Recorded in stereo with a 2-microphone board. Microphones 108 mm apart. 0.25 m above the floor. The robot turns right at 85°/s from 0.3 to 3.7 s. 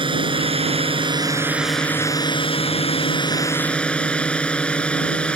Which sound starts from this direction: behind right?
A drone, at 0.0 s.